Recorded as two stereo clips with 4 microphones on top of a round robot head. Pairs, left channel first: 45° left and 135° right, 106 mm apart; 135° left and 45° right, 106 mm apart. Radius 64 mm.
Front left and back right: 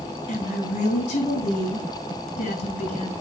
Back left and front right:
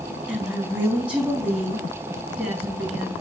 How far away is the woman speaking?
About 3.5 m.